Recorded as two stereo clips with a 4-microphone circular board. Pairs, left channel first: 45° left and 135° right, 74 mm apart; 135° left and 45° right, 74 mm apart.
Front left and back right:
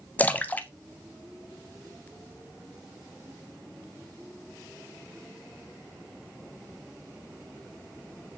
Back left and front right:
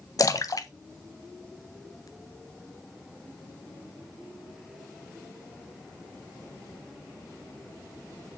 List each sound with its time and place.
0.2 s a splash: 110° left, 0.7 m